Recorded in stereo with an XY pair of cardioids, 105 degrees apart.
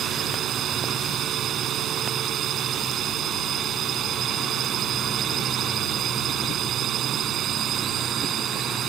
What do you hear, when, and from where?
0.0 s a drone: 65° right